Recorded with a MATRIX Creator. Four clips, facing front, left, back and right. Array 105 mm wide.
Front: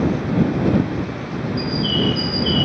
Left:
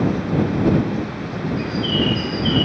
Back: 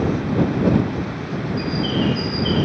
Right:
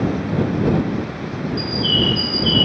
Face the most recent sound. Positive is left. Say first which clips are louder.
# left 1 dB, even
turn(degrees=110)